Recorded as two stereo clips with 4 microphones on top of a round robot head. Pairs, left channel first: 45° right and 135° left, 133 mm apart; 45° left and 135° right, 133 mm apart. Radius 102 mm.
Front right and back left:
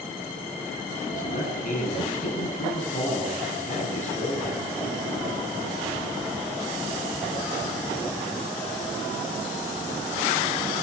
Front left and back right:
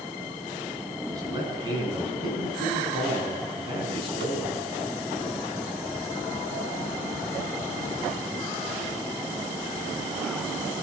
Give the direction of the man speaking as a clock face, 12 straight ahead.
2 o'clock.